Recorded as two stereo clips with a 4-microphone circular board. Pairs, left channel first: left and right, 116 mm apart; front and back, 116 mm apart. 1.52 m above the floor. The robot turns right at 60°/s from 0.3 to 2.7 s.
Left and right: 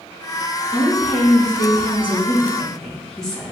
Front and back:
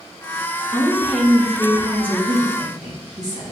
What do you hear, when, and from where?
0.7 s a woman speaking: 55° left, 2.5 m; by 3.5 s 175° left, 2.5 m